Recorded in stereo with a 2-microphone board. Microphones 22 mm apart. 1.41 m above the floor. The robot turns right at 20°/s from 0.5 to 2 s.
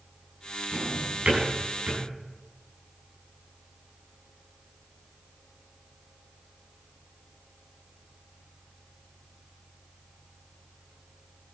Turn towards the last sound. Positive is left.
turn(degrees=-50)  # may be behind; listen again after turning